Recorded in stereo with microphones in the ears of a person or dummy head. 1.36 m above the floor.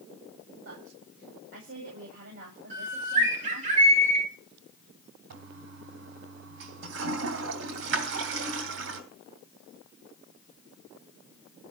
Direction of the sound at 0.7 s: 70° right (ahead or behind).